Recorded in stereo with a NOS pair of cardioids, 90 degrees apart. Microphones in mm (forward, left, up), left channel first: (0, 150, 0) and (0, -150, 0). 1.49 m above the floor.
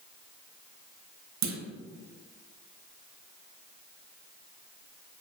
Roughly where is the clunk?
Ahead right.